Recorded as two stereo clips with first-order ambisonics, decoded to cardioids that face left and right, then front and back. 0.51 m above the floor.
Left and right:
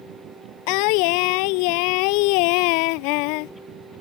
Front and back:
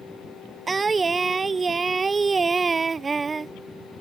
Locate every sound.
0.7 s singing: 105° left